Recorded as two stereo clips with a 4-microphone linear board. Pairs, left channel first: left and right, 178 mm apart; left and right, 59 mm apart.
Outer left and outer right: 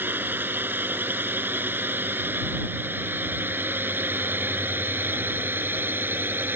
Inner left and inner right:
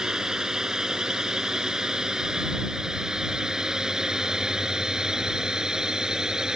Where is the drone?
10° right (ahead or behind).